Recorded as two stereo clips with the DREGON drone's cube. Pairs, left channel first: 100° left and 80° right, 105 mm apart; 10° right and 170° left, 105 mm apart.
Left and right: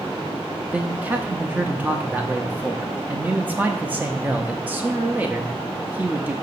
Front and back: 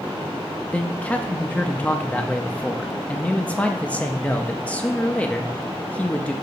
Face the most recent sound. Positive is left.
turn(degrees=-60)